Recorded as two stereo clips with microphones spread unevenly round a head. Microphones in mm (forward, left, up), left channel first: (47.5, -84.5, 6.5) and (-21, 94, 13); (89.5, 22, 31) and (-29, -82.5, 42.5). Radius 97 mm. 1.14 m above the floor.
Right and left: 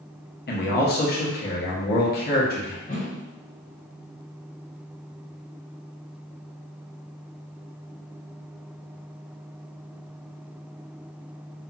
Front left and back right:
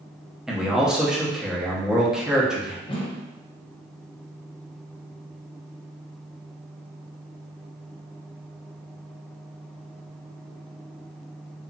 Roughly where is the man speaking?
Ahead right.